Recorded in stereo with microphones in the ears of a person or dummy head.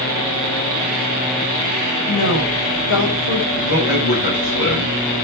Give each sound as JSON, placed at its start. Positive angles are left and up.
{"t": 2.1, "sound": "a woman speaking", "side_deg": 60, "distance_m": 6.0}
{"t": 3.5, "sound": "a man speaking", "side_deg": 55, "distance_m": 7.0}